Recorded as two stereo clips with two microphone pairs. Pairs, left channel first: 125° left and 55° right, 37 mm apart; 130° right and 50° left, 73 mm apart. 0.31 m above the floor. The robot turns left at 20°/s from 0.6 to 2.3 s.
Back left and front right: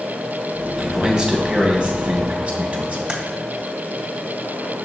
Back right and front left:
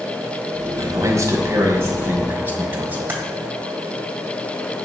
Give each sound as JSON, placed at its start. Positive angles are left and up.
{"t": 0.8, "sound": "a man speaking", "azimuth_deg": 20, "distance_m": 1.9}
{"t": 3.1, "sound": "typing on a keyboard", "azimuth_deg": 5, "distance_m": 1.5}